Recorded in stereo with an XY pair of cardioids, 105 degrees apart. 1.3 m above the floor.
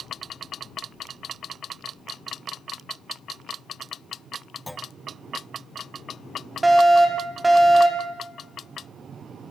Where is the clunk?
5° left, 0.5 m.